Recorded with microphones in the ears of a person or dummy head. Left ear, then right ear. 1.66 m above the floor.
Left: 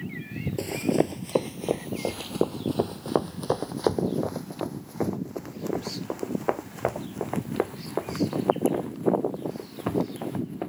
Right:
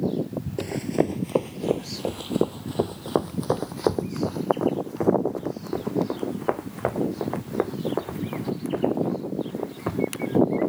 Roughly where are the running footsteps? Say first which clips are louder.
Even; centre.